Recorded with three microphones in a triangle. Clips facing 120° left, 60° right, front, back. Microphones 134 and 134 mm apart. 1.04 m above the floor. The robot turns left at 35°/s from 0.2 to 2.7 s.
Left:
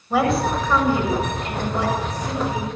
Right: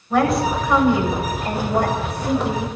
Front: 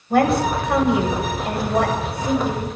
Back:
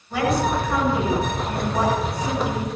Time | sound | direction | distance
0.1 | a woman speaking | 35° left | 6.5 m